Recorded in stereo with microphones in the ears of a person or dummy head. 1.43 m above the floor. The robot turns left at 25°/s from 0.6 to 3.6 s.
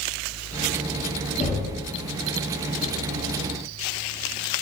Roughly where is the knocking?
Left.